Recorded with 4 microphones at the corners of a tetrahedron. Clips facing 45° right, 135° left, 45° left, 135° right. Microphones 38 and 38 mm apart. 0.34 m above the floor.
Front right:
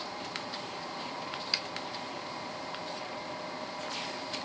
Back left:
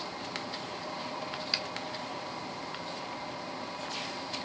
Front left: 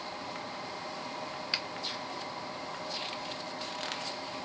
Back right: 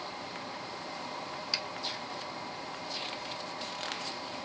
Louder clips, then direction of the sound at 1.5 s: Even, front left 1 dB; 50° left.